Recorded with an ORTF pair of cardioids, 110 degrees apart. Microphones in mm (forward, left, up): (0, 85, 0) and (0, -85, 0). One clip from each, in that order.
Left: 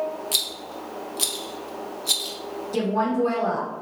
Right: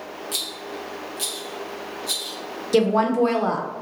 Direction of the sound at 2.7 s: 55° right.